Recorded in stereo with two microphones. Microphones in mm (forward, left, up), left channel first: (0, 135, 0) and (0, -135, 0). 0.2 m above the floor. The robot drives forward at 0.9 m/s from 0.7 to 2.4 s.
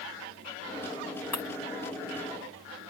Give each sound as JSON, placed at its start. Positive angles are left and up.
{"t": 1.3, "sound": "breaking glass", "side_deg": 75}